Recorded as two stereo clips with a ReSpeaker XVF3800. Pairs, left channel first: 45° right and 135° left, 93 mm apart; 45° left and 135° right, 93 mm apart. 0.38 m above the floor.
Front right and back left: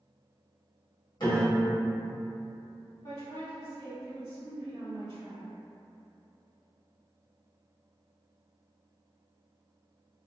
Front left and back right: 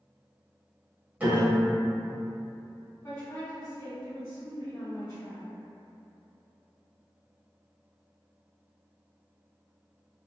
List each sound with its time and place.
1.2 s a piano: 65° right, 1.1 m
3.0 s a woman speaking: 10° right, 1.7 m